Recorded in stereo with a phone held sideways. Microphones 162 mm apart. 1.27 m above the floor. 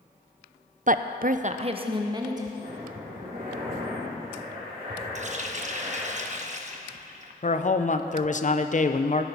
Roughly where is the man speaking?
Left.